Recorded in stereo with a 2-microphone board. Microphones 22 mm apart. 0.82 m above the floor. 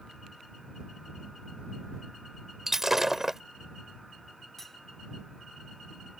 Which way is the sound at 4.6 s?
15° left (ahead or behind).